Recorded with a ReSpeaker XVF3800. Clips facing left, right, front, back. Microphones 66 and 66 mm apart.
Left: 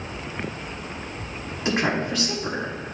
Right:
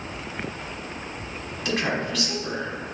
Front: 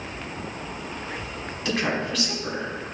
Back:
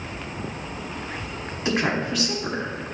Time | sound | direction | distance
1.6 | a woman speaking | 130° left | 1.4 m